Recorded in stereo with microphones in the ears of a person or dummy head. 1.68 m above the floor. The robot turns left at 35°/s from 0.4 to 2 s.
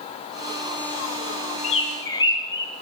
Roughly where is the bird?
Left.